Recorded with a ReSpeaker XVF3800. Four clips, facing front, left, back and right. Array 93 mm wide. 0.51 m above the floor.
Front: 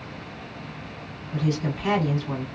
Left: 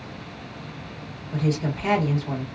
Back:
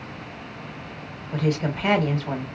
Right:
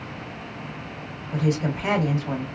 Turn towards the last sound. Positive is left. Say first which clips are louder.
# right 1 dB, back 2 dB
turn(degrees=-165)